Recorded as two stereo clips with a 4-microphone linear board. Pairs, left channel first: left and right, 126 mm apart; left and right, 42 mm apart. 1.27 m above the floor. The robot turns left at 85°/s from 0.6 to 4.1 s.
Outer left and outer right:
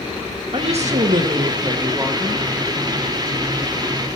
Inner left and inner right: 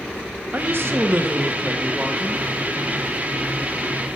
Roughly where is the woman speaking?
Ahead right.